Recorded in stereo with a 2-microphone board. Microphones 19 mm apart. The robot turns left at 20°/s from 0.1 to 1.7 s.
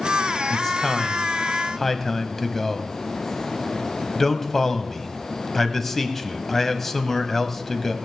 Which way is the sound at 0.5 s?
20° left (ahead or behind).